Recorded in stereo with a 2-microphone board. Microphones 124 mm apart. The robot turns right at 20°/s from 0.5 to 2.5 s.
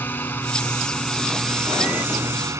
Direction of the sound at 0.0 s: 160° left.